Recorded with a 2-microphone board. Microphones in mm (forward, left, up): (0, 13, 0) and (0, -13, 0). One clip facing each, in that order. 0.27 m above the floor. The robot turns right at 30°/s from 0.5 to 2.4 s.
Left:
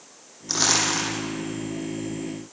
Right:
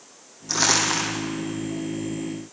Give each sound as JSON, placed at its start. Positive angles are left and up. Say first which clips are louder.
{"t": 0.5, "sound": "crumpling", "louder": "right 1 dB", "side_deg": 5, "distance_m": 7.5}